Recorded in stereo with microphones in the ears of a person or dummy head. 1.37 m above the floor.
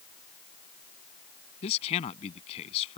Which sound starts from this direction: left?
A man speaking, at 1.6 s.